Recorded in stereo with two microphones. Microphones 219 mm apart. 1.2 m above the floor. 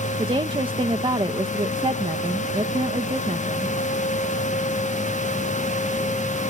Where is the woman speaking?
25° right (ahead or behind).